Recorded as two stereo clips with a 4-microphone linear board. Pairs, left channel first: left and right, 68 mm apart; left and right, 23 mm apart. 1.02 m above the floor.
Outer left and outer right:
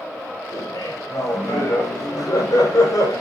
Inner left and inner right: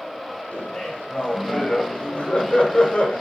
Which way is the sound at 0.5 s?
60° left (ahead or behind).